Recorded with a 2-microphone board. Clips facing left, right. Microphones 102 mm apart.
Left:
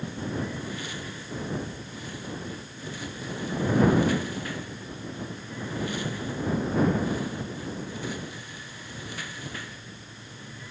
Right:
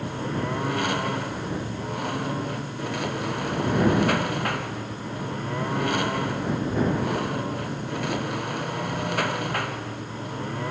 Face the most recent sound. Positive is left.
turn(degrees=-65)  # may be behind; listen again after turning